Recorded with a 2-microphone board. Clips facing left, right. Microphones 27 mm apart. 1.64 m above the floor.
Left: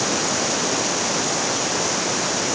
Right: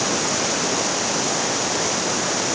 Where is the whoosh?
No whoosh in this recording.